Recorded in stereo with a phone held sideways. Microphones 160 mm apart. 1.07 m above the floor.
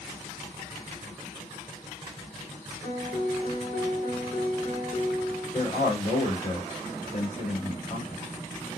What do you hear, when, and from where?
2.8 s a piano: 50° left (ahead or behind), 2 m
5.5 s a man speaking: 50° left (ahead or behind), 2.0 m